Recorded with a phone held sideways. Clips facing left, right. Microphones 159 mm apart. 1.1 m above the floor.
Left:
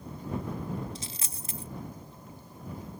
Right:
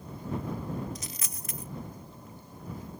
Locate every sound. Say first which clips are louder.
0.9 s a dropped coin: even; 30° left (ahead or behind)